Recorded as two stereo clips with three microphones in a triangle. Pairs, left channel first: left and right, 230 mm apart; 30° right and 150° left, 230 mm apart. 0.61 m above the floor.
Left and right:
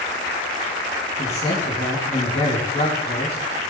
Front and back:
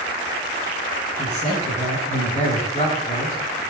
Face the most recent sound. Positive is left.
turn(degrees=30)